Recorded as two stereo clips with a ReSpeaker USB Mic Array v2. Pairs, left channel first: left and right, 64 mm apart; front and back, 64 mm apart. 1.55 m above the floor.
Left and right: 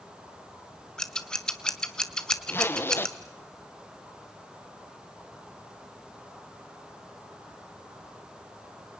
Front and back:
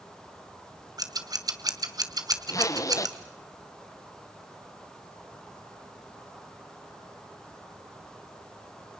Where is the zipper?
35° left, 1.2 m.